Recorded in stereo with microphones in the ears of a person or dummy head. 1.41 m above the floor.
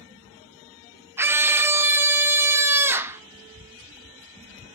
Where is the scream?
10° right (ahead or behind), 0.6 m.